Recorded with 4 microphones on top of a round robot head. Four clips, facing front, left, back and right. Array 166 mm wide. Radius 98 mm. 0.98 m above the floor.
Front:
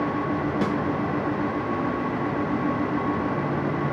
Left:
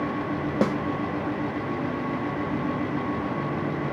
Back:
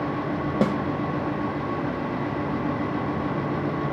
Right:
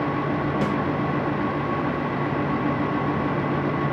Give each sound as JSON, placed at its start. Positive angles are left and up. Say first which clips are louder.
{"t": 0.6, "sound": "a snare drum", "louder": "left 4 dB, back 5 dB", "azimuth_deg": 140, "distance_m": 1.6}